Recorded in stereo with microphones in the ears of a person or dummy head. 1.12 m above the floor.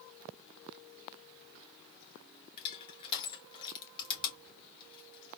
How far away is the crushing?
About 1.2 m.